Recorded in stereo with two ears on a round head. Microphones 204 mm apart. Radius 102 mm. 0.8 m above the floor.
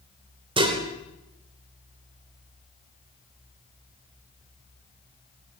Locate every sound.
0.6 s dishes clattering: 25° right (ahead or behind), 1.8 m